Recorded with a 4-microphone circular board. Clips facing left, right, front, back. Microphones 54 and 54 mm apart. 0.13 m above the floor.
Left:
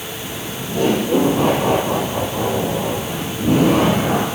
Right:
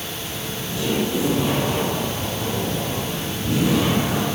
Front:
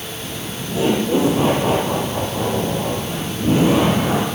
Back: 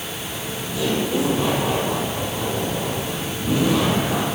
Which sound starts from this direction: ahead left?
Laughter, at 0.2 s.